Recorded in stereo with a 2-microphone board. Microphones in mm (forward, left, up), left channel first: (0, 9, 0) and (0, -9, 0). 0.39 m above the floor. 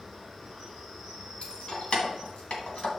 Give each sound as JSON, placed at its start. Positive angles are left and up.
{"t": 0.0, "sound": "an insect", "side_deg": 10, "distance_m": 4.5}
{"t": 1.4, "sound": "keys jangling", "side_deg": 65, "distance_m": 2.0}